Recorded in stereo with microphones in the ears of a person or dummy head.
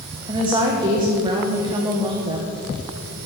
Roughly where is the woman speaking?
Right.